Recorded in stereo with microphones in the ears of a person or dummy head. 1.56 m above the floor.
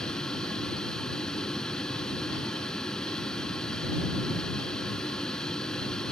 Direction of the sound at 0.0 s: 5° left (ahead or behind).